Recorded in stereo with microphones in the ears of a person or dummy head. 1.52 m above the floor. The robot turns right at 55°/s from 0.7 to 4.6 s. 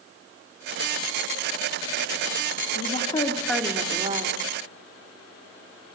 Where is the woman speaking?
140° left, 3 m; by 4.4 s 130° right, 3 m.